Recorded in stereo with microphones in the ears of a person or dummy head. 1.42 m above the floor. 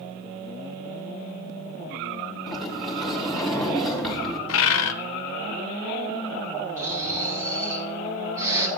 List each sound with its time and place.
2.5 s a sliding door: centre (ahead or behind), 4.5 m
4.5 s a bird: 80° left, 1.1 m
6.8 s snoring: 20° right (ahead or behind), 4 m